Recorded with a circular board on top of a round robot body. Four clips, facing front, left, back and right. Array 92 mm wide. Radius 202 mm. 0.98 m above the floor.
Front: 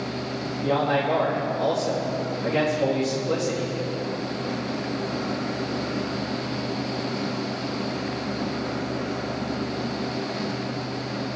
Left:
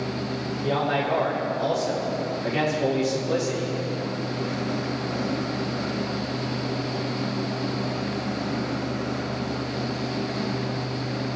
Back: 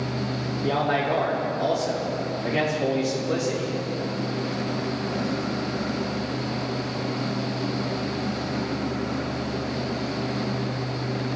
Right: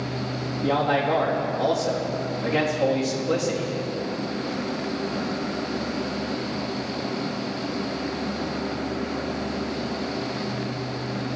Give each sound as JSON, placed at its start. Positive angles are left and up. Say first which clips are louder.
{"t": 0.6, "sound": "a man speaking", "louder": "right 3 dB, front 1 dB", "azimuth_deg": -75, "distance_m": 2.5}